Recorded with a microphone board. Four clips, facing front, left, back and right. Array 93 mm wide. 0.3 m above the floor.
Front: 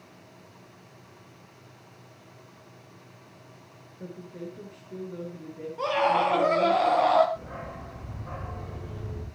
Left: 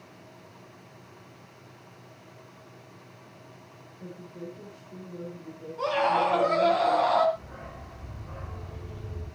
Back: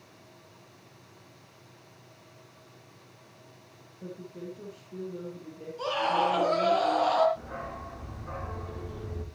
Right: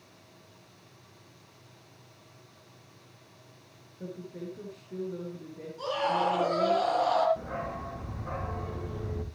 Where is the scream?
25° left, 8 m.